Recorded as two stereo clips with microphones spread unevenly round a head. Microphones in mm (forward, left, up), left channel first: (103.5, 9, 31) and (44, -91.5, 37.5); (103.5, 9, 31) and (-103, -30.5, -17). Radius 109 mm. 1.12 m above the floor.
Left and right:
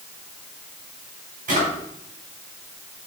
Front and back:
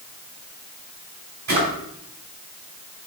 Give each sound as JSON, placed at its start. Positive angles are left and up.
{"t": 1.5, "sound": "a drawer", "azimuth_deg": -120, "distance_m": 4.0}